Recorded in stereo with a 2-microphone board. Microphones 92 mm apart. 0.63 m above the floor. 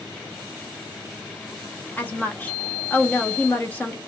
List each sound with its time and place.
2.0 s a woman speaking: 15° left (ahead or behind), 0.9 m